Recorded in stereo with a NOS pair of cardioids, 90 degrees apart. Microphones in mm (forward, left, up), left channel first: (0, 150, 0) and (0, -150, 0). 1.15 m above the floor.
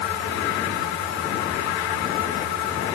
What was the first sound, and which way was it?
Only background noise.